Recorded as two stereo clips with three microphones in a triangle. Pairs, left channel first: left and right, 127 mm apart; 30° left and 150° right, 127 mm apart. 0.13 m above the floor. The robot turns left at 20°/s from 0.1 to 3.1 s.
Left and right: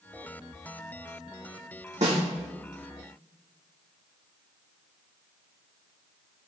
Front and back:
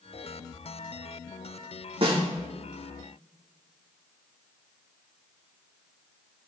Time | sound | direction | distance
2.0 | a snare drum | 110° right | 5 m